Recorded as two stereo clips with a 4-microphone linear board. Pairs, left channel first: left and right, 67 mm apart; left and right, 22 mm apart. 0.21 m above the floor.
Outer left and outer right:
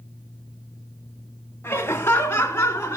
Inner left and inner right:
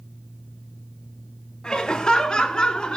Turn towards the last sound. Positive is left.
turn(degrees=35)  # may be behind; listen again after turning